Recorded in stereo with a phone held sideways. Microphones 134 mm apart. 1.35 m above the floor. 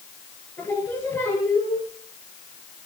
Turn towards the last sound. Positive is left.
turn(degrees=20)  # may be behind; listen again after turning